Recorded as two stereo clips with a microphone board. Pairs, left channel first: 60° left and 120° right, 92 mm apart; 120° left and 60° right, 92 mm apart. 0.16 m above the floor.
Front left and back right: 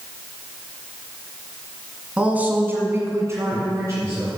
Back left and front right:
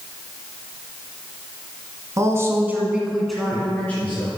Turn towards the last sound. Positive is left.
turn(degrees=-175)